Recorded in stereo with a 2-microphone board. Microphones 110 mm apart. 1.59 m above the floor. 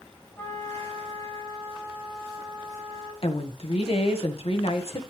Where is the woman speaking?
60° left (ahead or behind), 1.5 m.